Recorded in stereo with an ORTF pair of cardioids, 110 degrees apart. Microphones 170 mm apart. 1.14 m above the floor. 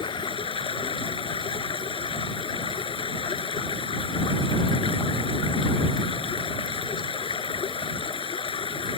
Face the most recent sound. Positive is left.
turn(degrees=30)